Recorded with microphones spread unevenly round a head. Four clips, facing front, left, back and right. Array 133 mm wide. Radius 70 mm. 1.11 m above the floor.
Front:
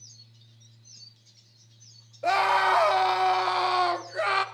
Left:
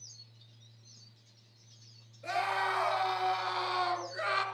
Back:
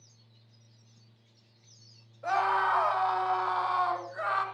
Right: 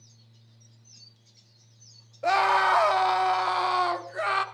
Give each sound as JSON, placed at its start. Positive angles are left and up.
{"t": 2.2, "sound": "a scream", "azimuth_deg": -45, "distance_m": 2.5}